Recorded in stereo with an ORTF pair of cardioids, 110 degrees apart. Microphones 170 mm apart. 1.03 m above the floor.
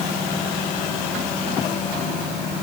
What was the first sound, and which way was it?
Only background noise.